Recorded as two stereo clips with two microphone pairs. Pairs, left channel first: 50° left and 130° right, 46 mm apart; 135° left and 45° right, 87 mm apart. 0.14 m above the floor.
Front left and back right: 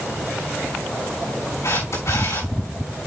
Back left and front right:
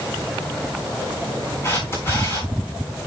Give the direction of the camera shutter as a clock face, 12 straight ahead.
10 o'clock.